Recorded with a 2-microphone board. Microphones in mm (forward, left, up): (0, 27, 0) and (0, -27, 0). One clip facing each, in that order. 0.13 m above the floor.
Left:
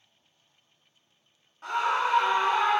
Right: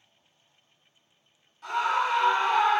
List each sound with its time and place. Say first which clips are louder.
1.6 s a scream: even; 30° left (ahead or behind), 1.3 m; by 2.8 s 20° left (ahead or behind), 1.4 m